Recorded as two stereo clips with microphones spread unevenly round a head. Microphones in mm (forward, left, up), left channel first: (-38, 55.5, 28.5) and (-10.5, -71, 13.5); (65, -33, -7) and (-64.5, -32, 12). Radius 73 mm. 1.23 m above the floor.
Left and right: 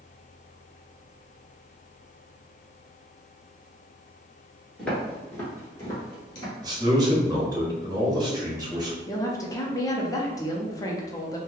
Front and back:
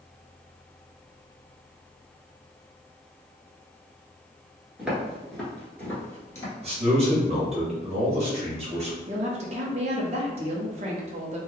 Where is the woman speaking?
160° left, 0.6 m.